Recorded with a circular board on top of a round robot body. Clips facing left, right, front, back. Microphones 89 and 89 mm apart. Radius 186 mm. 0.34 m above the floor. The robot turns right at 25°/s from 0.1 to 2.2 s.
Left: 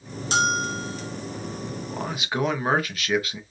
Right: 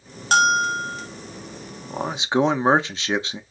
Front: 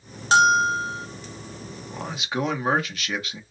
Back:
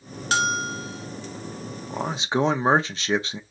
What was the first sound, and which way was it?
A bell, 65° right.